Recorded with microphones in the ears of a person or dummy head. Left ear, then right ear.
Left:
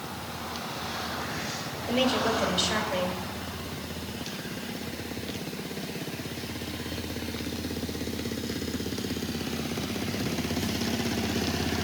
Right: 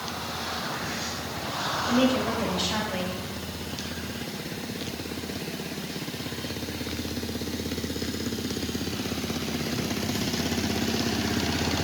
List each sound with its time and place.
1.9 s a woman speaking: 65° left (ahead or behind), 3 m